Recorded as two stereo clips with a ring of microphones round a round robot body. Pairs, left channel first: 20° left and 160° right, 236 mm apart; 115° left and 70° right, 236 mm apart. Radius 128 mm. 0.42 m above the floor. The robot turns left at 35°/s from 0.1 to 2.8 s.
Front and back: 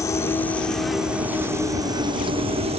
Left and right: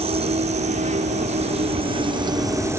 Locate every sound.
0.0 s an insect: 40° right; by 2.8 s 135° right